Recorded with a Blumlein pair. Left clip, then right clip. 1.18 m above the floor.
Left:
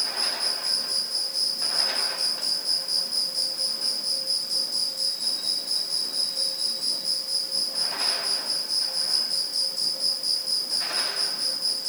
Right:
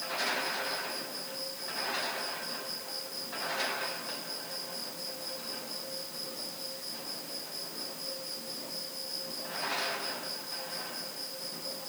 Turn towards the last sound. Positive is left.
turn(degrees=35)